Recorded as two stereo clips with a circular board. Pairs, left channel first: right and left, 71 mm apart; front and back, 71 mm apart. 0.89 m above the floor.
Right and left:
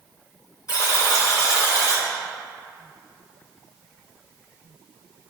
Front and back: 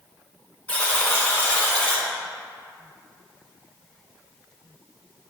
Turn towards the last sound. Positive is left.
turn(degrees=-65)